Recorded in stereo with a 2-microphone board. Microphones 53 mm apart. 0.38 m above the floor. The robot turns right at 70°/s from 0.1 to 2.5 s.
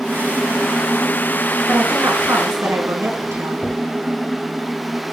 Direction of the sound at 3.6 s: 15° left (ahead or behind).